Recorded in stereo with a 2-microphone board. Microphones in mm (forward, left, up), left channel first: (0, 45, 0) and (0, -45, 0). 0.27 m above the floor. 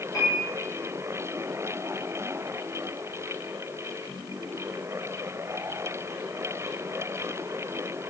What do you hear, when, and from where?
0.1 s a piano: 45° left (ahead or behind), 5 m